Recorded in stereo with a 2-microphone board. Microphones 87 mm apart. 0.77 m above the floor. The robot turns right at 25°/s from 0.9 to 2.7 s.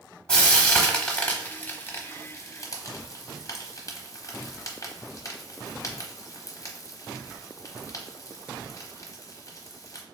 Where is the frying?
10° left (ahead or behind), 0.8 m; by 10.0 s 40° left (ahead or behind), 0.8 m.